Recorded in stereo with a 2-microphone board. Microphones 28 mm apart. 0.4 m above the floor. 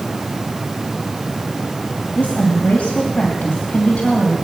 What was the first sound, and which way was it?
A woman speaking, 50° left (ahead or behind).